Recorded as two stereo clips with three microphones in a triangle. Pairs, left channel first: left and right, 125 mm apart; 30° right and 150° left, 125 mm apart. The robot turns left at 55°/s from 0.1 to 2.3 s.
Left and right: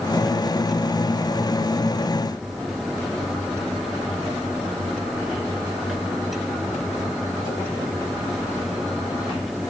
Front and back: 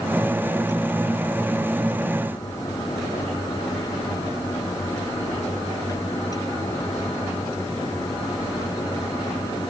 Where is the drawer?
No drawer in this recording.